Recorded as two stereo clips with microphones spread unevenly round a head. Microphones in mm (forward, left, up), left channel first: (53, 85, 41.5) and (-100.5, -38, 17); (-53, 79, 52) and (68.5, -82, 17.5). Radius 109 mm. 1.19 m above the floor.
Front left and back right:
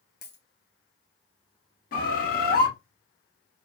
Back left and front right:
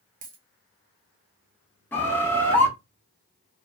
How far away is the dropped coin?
About 0.7 m.